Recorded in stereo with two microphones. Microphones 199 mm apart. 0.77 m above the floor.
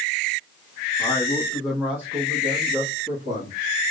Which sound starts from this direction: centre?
A man speaking, at 1.0 s.